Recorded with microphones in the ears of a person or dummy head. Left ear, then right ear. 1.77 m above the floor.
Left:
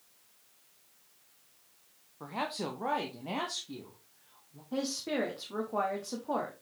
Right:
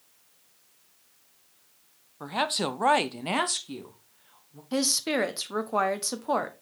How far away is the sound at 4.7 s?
About 1.1 m.